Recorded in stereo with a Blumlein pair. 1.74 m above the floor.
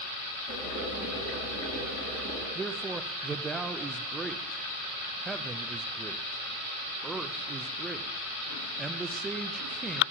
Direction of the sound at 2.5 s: 15° right.